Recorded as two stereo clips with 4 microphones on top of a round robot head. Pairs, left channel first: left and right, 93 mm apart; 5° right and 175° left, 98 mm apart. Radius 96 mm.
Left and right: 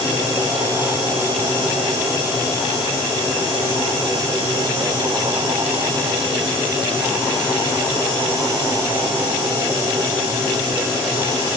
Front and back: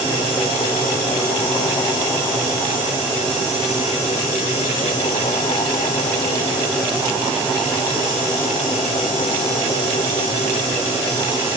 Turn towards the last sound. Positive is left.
No sound to turn to.